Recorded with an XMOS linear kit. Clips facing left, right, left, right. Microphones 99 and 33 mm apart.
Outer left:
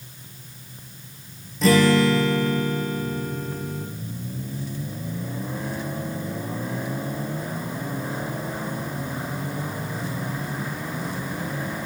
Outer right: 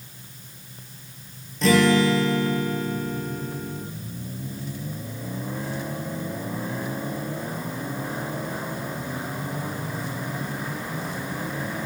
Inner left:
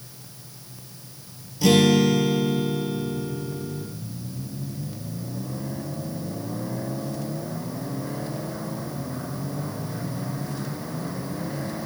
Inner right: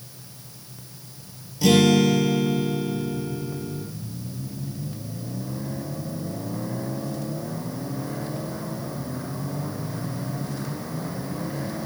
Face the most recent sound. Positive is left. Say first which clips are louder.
# outer left 1 dB, even
turn(degrees=0)  # may be behind; listen again after turning